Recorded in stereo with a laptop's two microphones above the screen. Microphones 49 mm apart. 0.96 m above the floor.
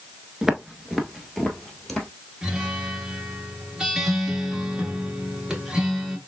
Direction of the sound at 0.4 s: 10° right (ahead or behind).